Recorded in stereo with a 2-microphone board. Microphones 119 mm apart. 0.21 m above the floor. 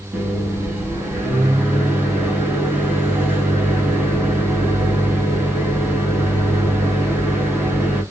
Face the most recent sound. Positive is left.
turn(degrees=-15)  # may be behind; listen again after turning